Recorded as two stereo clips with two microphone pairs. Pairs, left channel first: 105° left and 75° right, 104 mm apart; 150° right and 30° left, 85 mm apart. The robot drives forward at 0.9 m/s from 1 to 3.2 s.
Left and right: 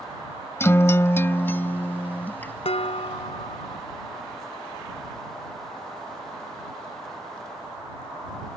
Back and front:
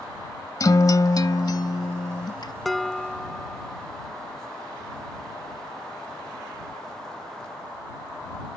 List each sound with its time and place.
0.6 s a guitar: 165° left; by 2.5 s 175° left
2.6 s dishes clattering: 120° left; by 3.9 s 125° left